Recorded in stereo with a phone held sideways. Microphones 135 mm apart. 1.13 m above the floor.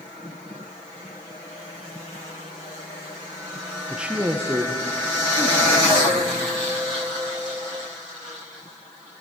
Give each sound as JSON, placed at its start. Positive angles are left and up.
{"t": 3.9, "sound": "a man speaking", "side_deg": -5, "distance_m": 0.7}